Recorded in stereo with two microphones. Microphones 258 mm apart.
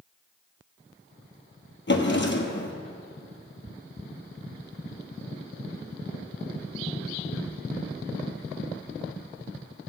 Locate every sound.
1.9 s a drawer: 45° left (ahead or behind), 1.1 m